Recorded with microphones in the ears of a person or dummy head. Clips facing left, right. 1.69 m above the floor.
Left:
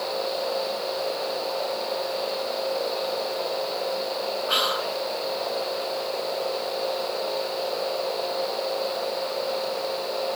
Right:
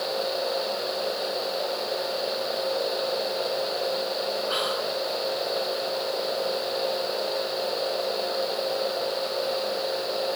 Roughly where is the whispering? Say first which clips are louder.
Even; left.